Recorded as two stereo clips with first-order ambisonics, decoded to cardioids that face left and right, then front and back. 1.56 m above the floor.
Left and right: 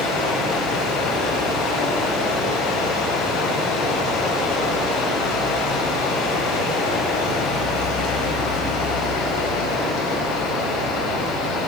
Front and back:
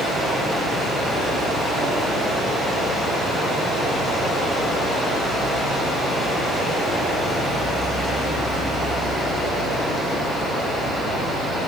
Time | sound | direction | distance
0.0 | running water | 105° left | 9 m